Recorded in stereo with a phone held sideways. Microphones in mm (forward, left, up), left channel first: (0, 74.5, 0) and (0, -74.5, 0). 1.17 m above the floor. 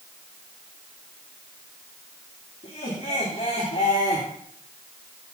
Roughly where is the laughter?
Left.